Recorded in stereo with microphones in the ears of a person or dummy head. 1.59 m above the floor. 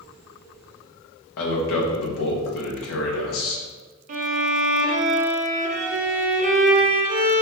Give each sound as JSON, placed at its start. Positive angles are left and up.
{"t": 1.4, "sound": "a man speaking", "side_deg": 65, "distance_m": 1.0}
{"t": 4.1, "sound": "a violin", "side_deg": -45, "distance_m": 0.5}